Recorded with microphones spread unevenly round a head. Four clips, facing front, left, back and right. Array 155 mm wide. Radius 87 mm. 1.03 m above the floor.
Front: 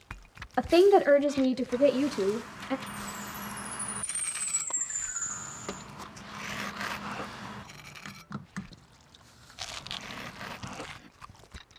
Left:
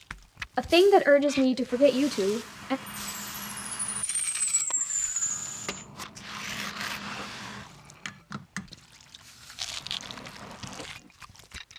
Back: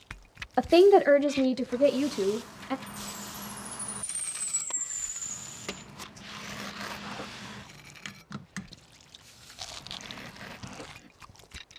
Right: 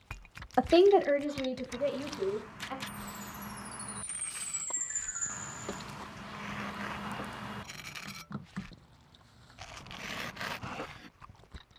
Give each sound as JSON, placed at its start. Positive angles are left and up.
{"t": 0.6, "sound": "a woman speaking", "azimuth_deg": -165, "distance_m": 0.5}
{"t": 2.9, "sound": "a chime", "azimuth_deg": 0, "distance_m": 8.5}